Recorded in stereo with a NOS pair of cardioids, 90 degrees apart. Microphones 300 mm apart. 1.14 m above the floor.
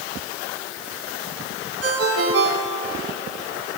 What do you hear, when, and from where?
1.8 s a ringtone: 55° right, 6 m